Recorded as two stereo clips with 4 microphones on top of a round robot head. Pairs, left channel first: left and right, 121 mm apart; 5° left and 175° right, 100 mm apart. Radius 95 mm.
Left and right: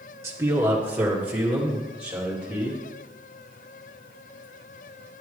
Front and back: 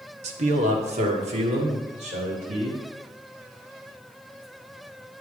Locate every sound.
0.2 s a man speaking: 160° right, 1.3 m; by 2.8 s 175° right, 3.5 m